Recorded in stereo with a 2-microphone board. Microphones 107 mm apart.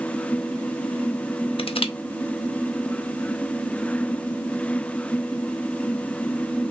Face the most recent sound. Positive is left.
turn(degrees=60)  # may be behind; listen again after turning